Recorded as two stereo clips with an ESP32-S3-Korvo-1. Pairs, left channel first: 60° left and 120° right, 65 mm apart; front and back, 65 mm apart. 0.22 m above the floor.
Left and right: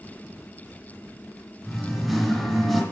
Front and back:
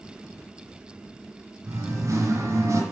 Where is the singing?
150° left, 1.9 m.